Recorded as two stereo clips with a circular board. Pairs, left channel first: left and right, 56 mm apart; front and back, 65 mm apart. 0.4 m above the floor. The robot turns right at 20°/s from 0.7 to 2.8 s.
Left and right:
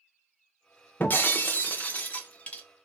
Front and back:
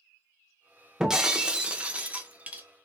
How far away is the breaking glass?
About 0.6 m.